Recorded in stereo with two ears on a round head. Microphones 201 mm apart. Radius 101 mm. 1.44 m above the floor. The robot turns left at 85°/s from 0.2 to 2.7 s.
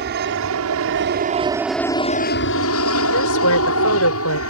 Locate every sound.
0.0 s an aircraft: 50° right; by 4.5 s 95° left
3.1 s a woman speaking: 75° left (ahead or behind)